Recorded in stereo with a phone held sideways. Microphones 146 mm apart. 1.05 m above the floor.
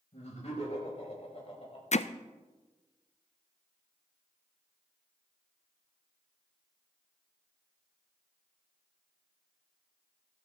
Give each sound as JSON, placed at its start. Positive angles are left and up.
{"t": 0.1, "sound": "laughter", "side_deg": 55, "distance_m": 5.5}
{"t": 1.9, "sound": "hammering", "side_deg": 55, "distance_m": 0.5}